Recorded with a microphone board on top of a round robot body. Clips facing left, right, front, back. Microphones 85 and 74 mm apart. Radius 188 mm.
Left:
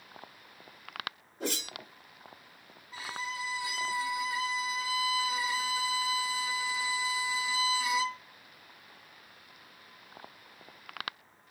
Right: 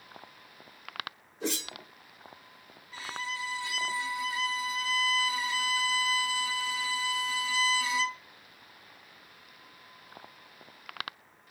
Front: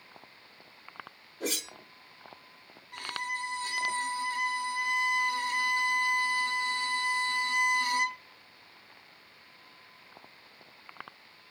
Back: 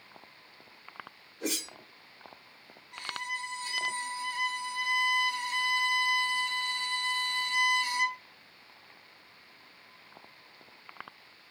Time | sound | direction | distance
1.4 | a whoosh | 50° left | 1.6 m
2.9 | a violin | 15° left | 1.0 m